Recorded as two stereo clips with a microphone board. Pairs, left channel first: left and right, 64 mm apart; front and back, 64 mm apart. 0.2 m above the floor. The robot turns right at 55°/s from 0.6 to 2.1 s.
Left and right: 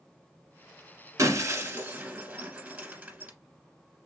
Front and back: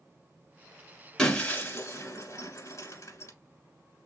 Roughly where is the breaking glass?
Right.